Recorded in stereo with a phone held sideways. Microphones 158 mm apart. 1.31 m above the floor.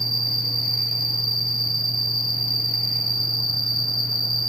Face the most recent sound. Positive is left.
turn(degrees=70)  # may be behind; listen again after turning